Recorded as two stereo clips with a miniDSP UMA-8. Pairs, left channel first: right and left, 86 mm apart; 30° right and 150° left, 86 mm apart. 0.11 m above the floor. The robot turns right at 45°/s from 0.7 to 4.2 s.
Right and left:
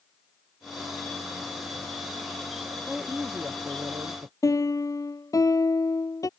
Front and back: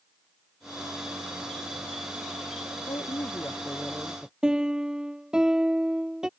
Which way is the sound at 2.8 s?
5° right.